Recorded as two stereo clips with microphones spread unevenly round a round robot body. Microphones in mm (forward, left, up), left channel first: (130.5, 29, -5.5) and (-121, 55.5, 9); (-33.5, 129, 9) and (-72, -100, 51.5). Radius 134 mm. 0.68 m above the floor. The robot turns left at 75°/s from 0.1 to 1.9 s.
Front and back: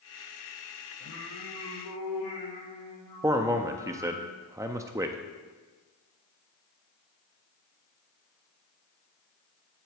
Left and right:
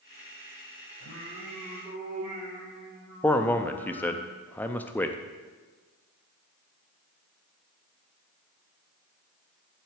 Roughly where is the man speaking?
Left.